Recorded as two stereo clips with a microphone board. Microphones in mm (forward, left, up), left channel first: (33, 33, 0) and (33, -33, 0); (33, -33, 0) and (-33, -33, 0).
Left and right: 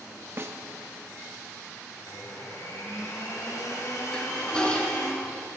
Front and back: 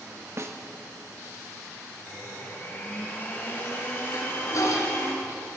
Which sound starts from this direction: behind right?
A snare drum, at 0.4 s.